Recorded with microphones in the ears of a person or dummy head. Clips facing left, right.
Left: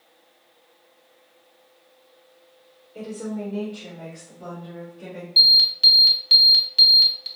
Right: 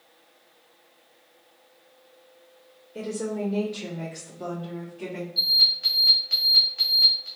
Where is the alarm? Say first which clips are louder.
Left 3 dB; 40° left (ahead or behind), 0.8 m.